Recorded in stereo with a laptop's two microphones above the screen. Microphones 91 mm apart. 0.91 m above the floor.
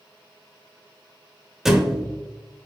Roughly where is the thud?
Centre.